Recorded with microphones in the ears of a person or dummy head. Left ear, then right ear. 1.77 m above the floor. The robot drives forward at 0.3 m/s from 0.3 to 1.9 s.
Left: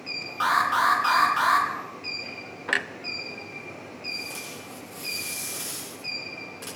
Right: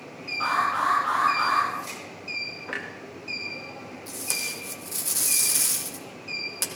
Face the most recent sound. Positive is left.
turn(degrees=-80)